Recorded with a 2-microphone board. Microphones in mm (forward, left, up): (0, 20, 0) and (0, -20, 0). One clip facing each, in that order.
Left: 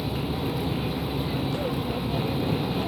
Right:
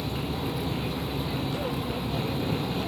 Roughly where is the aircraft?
Centre.